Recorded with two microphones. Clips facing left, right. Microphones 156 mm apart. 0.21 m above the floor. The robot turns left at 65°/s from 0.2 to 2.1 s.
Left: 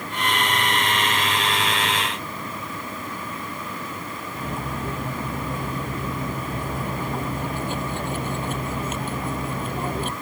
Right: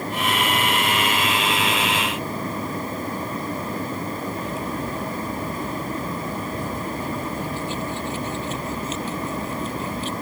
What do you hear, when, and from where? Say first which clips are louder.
4.3 s cutlery clinking: right 3 dB; 55° left (ahead or behind)